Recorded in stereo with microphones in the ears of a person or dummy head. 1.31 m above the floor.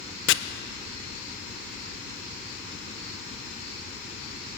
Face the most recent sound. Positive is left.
turn(degrees=60)  # may be behind; listen again after turning